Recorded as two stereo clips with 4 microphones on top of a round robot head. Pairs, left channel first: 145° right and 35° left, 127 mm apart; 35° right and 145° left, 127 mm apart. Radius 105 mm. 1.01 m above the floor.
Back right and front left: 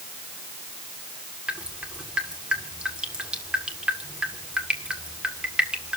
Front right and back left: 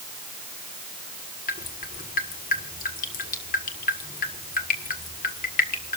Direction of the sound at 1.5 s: 45° right.